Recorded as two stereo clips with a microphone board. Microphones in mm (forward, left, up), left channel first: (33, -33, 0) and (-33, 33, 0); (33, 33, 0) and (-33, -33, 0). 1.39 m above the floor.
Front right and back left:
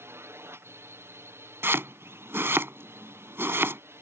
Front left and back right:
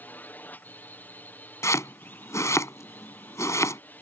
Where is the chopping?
85° left.